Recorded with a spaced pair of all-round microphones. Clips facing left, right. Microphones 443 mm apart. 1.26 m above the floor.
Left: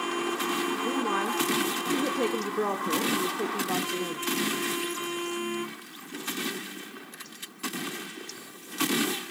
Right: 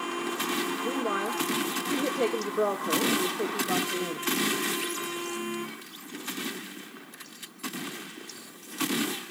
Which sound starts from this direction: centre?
A woman speaking, at 0.8 s.